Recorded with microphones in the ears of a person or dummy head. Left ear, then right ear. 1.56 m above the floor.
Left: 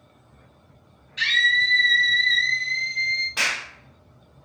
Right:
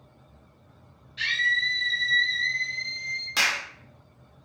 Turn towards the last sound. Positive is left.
turn(degrees=-80)